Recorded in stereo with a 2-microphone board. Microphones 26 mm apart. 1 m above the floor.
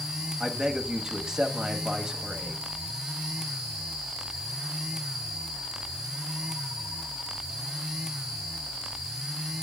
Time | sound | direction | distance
0.4 | a man speaking | 25° right (ahead or behind) | 1.9 m